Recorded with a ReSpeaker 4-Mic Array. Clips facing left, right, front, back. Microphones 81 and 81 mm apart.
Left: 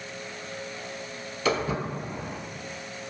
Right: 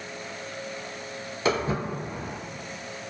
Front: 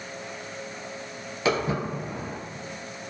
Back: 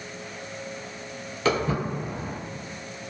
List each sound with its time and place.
1.4 s footsteps: 65° right, 1.0 m